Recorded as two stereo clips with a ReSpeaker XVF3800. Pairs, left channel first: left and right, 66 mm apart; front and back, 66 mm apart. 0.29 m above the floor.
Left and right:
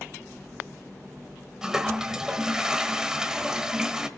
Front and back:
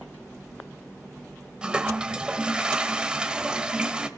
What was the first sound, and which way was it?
A toilet flushing, 145° right.